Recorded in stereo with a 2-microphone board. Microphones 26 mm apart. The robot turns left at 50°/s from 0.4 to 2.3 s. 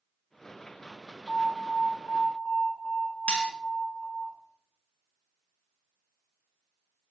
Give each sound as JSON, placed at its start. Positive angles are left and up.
{"t": 1.3, "sound": "an alarm", "azimuth_deg": 140, "distance_m": 2.0}
{"t": 3.3, "sound": "cutlery clinking", "side_deg": 55, "distance_m": 1.2}